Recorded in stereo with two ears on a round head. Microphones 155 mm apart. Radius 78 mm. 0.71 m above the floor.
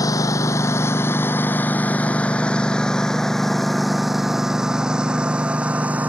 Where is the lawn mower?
20° left (ahead or behind); by 6.1 s 10° right (ahead or behind).